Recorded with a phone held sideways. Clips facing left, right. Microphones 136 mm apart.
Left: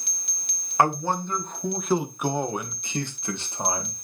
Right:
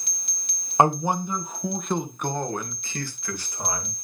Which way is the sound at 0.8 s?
20° right (ahead or behind).